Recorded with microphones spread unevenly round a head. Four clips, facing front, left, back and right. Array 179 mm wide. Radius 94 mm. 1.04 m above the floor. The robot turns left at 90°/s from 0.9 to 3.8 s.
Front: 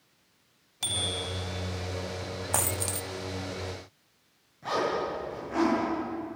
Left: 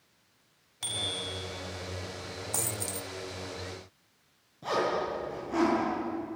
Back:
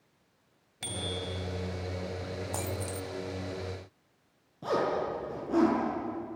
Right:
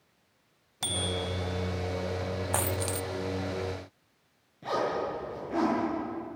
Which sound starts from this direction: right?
A bicycle bell, at 0.8 s.